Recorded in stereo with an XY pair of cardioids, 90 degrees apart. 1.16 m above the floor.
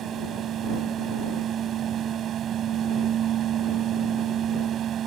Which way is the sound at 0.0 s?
70° right.